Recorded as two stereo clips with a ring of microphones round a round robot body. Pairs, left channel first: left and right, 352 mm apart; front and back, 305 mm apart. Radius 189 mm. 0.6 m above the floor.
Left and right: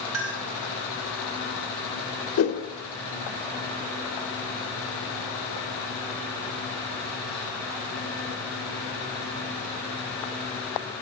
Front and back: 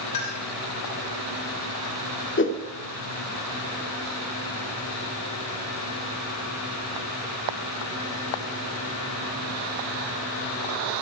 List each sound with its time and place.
0.1 s a clink: 40° right, 3 m
2.4 s a whoosh: 45° left, 1.7 m